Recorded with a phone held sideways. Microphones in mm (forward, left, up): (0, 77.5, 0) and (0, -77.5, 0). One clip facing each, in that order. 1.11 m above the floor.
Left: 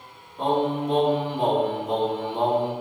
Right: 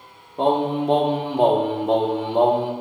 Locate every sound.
0.4 s singing: 65° right (ahead or behind), 1.4 m